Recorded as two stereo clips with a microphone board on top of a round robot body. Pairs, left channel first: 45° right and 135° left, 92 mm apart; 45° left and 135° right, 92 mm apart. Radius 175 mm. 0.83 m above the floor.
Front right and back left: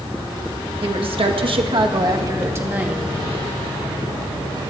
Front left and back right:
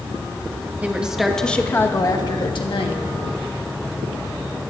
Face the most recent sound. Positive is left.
turn(degrees=60)